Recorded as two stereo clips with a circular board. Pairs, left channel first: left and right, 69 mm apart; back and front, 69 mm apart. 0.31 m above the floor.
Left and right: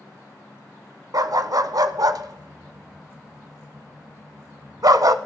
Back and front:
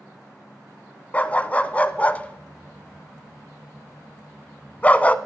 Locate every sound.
1.1 s a dog barking: 115° right, 0.5 m